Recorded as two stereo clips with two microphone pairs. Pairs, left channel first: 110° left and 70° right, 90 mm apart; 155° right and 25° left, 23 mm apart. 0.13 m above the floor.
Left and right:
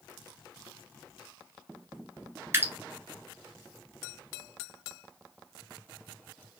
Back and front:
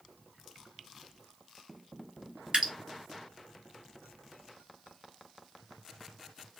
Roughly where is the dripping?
Ahead.